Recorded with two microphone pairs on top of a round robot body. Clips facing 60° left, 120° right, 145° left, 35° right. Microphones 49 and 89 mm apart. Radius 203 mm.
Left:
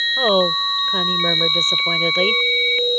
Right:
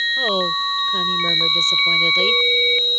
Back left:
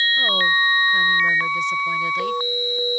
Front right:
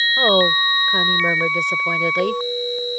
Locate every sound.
0.2 s a woman speaking: 5° left